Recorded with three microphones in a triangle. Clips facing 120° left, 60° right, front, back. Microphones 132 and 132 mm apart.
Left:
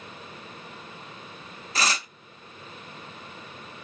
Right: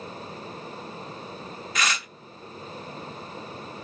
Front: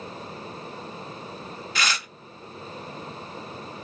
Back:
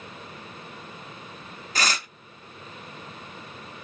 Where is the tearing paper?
155° left, 0.8 m.